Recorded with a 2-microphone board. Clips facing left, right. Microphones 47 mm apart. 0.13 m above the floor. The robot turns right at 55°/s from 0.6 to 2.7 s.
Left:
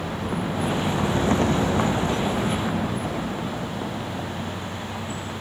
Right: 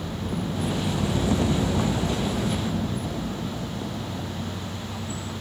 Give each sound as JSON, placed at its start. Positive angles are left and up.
{"t": 0.0, "sound": "a vehicle", "side_deg": 65}